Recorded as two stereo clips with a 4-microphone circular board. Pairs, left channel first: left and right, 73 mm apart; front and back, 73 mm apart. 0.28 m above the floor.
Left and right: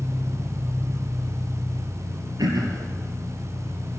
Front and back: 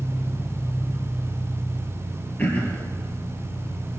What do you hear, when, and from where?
0.0 s an engine running: 5° right, 8 m
2.4 s throat clearing: 65° right, 2.5 m